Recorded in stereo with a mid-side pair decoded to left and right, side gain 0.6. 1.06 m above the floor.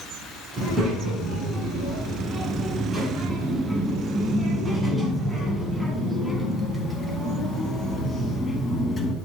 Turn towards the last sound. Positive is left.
turn(degrees=10)